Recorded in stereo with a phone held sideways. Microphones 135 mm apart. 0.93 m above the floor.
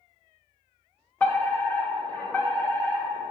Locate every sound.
1.2 s a fire alarm: 15° left (ahead or behind), 1.5 m